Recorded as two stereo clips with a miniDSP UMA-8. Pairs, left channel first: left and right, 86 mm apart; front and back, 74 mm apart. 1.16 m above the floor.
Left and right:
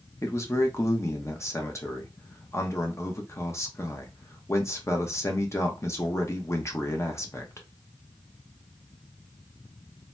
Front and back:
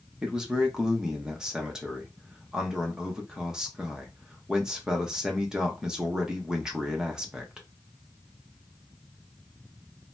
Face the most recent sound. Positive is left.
turn(degrees=105)